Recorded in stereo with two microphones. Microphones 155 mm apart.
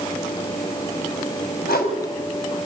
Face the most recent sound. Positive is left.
turn(degrees=85)